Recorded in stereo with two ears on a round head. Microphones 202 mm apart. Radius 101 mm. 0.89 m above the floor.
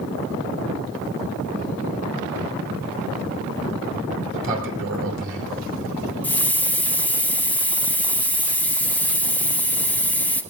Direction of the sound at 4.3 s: 55° right (ahead or behind).